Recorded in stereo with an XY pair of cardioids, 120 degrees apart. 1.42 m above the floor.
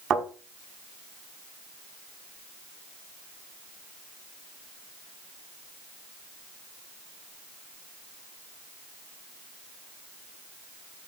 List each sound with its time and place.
0.1 s a thud: 55° right, 5.5 m